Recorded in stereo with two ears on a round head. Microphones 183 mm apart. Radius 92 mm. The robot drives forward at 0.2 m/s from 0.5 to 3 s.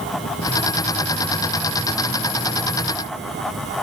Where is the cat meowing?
I don't hear a cat meowing.